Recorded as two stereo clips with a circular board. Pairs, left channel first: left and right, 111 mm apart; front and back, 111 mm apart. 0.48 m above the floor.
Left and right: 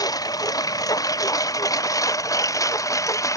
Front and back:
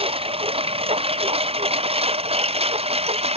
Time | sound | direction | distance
0.0 | a lawn mower | 145° left | ?